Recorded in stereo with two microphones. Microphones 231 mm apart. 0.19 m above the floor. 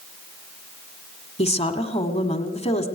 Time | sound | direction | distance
1.4 | a woman speaking | 25° left (ahead or behind) | 1.4 m